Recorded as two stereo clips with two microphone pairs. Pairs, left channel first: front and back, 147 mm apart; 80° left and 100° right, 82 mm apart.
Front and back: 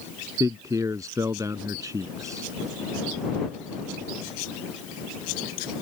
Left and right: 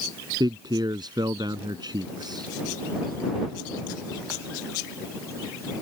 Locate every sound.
0.4 s a man speaking: 115° right